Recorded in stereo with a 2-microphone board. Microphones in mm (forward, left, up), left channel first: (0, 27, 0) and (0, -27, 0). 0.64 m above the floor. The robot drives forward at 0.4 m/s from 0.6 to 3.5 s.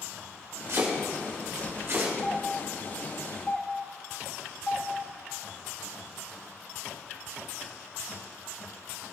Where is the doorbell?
30° left (ahead or behind), 2.5 m; by 4.9 s 25° left (ahead or behind), 3 m.